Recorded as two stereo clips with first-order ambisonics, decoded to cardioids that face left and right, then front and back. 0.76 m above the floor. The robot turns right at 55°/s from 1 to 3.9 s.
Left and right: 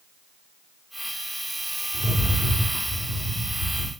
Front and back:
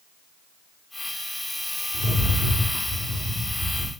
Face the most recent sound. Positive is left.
turn(degrees=-100)